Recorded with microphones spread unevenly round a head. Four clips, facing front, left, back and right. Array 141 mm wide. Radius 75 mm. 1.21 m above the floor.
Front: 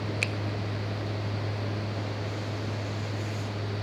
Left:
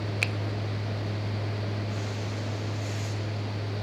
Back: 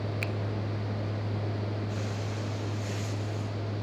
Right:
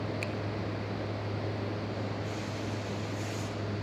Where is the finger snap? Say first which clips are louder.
Left 2 dB, front 1 dB; 65° left, 0.8 m.